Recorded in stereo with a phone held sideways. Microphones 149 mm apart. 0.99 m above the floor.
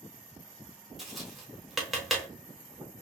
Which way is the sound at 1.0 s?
Centre (ahead or behind).